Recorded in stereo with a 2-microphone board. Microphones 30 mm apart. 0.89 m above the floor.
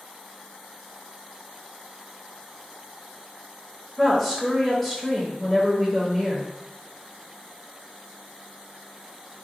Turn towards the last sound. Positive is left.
turn(degrees=0)  # may be behind; listen again after turning